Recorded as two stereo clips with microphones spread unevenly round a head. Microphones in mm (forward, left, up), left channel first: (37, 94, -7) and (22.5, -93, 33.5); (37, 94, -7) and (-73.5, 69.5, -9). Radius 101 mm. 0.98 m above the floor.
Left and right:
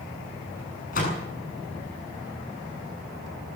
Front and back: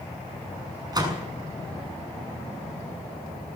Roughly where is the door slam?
Behind left.